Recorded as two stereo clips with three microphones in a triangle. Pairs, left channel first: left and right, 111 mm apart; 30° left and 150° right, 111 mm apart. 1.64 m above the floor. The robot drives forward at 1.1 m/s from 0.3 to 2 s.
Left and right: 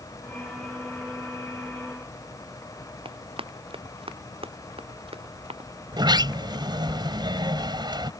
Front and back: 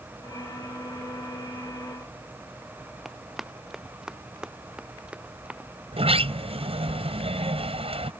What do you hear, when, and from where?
3.0 s running footsteps: 65° right; by 5.7 s 75° right
5.9 s a sliding door: 135° right